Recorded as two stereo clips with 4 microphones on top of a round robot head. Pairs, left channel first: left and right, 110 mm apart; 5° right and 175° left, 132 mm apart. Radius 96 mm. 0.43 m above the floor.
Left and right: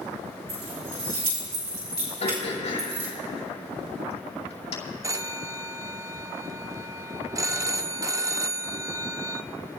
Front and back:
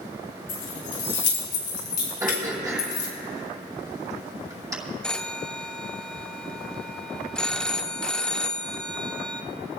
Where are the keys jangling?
40° right, 4 m.